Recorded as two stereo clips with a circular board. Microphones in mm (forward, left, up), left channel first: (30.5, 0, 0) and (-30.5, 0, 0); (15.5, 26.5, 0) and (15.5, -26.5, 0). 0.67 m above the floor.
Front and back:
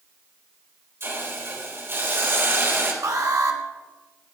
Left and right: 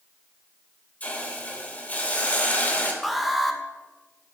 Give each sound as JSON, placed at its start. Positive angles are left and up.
{"t": 1.0, "sound": "a hiss", "azimuth_deg": 140, "distance_m": 3.0}
{"t": 3.0, "sound": "an alarm", "azimuth_deg": 180, "distance_m": 1.4}